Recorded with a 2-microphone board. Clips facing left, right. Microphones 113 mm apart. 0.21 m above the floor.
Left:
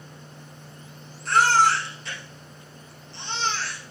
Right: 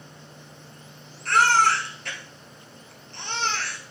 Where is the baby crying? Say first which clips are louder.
Left 1 dB; 60° right (ahead or behind), 2 m.